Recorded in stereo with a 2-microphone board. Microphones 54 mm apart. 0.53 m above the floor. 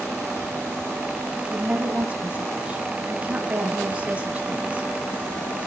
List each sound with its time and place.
1.5 s a woman speaking: 25° right (ahead or behind), 3.5 m